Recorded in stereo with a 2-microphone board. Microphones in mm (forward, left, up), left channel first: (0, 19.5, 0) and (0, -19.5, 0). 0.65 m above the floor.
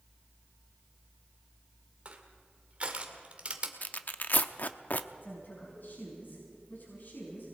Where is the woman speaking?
60° left (ahead or behind), 6 m.